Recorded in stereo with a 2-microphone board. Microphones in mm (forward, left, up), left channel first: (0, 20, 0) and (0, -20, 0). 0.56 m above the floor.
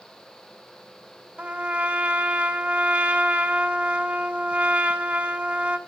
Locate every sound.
1.4 s a trumpet: 30° right (ahead or behind), 1.2 m